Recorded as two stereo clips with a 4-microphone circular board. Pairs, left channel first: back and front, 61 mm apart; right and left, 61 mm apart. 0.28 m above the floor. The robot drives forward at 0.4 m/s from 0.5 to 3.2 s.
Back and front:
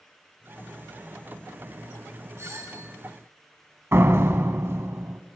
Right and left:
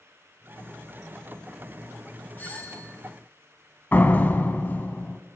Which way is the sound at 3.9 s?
35° right.